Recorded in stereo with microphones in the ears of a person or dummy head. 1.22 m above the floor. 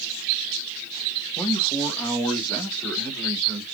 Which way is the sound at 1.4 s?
20° left (ahead or behind).